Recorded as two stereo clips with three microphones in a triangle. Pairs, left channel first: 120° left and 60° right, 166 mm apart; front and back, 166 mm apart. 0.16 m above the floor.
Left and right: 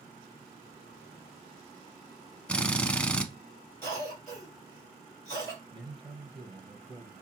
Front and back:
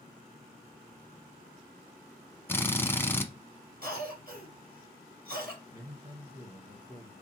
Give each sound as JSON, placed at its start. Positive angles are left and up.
{"t": 2.5, "sound": "a drill", "azimuth_deg": 50, "distance_m": 0.6}
{"t": 3.8, "sound": "a cough", "azimuth_deg": -165, "distance_m": 3.0}
{"t": 5.7, "sound": "a man speaking", "azimuth_deg": -115, "distance_m": 2.5}